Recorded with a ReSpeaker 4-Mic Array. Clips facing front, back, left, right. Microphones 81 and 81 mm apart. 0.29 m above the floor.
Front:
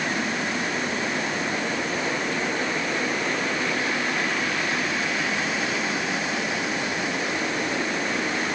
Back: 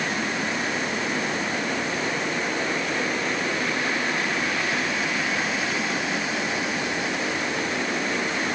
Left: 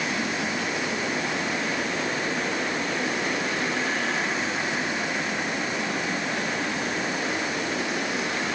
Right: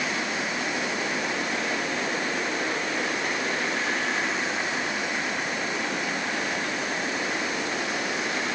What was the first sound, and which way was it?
Only background noise.